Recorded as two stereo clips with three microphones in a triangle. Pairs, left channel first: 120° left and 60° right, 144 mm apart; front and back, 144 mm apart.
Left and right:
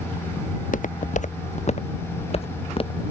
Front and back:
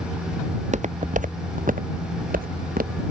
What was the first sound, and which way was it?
Footsteps, 140° left.